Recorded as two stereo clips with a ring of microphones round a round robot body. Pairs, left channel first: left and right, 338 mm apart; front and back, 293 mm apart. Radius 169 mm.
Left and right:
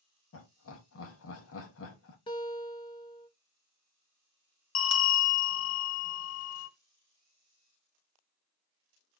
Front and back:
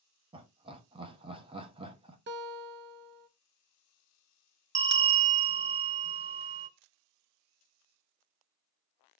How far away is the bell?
About 0.7 m.